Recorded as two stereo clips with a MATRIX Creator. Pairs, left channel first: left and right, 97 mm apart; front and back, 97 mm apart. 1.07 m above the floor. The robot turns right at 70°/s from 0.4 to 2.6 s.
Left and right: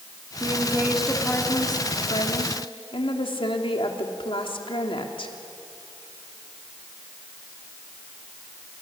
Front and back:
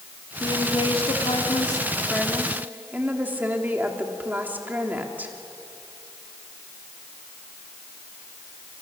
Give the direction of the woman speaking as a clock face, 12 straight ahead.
2 o'clock.